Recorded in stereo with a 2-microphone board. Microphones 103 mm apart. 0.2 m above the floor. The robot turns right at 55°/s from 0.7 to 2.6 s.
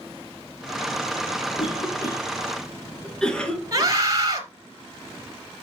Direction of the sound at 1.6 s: 55° left (ahead or behind).